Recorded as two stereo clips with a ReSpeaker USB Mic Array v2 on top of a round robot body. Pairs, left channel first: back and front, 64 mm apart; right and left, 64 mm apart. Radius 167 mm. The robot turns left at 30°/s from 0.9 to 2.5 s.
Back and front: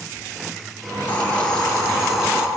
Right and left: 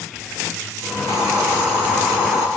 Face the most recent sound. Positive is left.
turn(degrees=75)